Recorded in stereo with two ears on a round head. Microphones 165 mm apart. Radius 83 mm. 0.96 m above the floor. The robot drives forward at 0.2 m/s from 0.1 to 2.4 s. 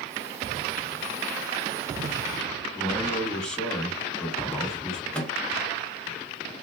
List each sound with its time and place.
2.8 s a man speaking: 5° left (ahead or behind), 1.5 m
5.1 s a microwave: 5° left (ahead or behind), 0.7 m